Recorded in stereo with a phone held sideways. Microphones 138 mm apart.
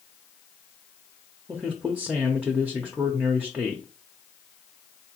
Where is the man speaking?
10° right (ahead or behind), 0.6 m.